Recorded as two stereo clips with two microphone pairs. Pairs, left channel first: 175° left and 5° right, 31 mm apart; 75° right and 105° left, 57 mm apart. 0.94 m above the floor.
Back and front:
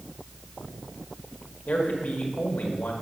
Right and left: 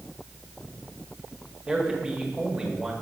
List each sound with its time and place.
1.7 s a man speaking: straight behind, 1.4 m